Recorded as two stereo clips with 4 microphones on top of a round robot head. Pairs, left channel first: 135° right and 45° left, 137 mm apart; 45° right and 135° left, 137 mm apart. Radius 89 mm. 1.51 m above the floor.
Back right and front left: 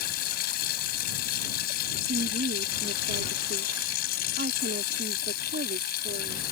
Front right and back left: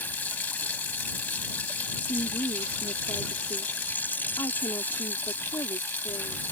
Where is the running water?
120° right.